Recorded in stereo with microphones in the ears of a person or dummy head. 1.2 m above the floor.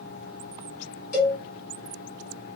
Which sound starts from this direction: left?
A cowbell, at 1.1 s.